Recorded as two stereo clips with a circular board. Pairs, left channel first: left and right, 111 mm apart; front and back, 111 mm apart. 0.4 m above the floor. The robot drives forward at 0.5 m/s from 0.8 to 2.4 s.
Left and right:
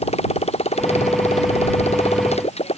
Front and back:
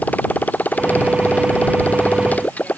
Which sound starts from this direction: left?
A motorcycle, at 0.0 s.